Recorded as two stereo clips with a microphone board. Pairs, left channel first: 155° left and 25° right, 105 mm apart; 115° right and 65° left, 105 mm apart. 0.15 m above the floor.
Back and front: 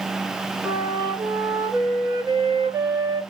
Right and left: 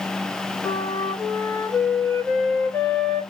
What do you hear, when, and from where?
0.6 s a flute: 55° right, 1.2 m